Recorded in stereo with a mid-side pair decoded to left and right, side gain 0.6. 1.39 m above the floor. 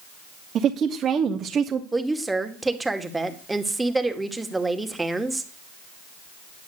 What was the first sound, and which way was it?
A woman speaking, 50° right.